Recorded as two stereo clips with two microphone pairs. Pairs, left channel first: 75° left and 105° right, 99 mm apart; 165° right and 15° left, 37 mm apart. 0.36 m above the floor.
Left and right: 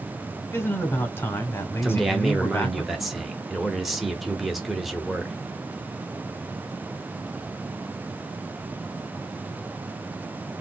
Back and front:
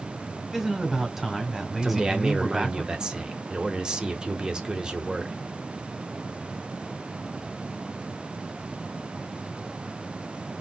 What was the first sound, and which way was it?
A man speaking, 90° left.